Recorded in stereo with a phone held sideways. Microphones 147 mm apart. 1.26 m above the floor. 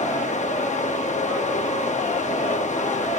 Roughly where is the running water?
Left.